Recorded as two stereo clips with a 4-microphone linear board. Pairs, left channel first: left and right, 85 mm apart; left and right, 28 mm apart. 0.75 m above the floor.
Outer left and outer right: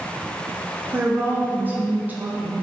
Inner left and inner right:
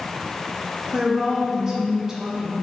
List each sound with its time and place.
0.9 s a woman speaking: 20° right (ahead or behind), 0.5 m